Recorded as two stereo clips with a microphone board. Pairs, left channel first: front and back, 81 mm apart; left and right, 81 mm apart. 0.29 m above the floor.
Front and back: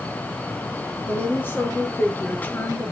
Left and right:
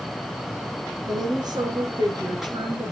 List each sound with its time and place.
1.1 s a woman speaking: 65° right, 5.5 m; by 2.9 s 70° right, 4.5 m